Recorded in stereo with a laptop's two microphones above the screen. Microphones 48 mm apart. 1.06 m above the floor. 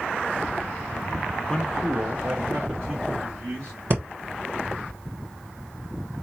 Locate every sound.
1.5 s a man speaking: 20° left (ahead or behind), 0.5 m; by 3.8 s 55° right (ahead or behind), 3.5 m
3.9 s breathing: 50° right (ahead or behind), 1.1 m